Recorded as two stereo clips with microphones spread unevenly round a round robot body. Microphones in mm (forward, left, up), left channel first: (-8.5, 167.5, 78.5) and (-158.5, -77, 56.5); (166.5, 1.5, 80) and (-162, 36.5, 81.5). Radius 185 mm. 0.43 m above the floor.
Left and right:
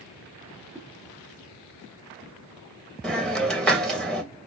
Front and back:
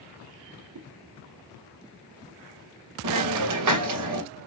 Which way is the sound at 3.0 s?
150° left.